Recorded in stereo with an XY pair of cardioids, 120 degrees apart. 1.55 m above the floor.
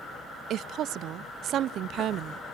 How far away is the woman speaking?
About 0.5 m.